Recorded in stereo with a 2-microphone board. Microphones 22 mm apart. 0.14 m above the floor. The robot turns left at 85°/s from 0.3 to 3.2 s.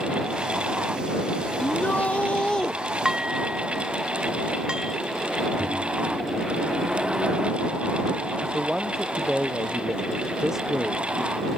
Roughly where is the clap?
No clap in this recording.